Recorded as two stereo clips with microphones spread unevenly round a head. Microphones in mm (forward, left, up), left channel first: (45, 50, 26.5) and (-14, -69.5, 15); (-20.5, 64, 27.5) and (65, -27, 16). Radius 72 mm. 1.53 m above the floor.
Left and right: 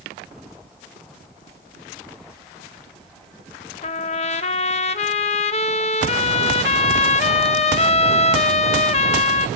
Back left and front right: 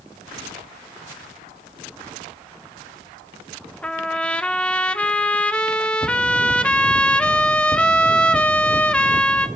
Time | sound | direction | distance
3.8 | a trumpet | 60° left | 0.9 m